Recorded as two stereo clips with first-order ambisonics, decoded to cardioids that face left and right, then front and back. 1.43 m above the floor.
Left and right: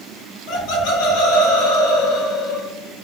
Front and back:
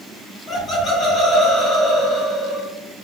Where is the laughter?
70° left, 1.1 m.